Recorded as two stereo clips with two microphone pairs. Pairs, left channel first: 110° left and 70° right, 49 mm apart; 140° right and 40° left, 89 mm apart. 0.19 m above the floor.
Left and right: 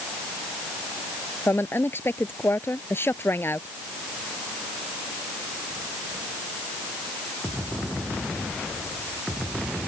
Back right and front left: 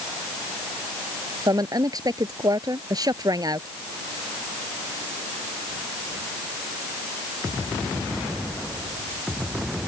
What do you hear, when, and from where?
1.5 s a woman speaking: 80° left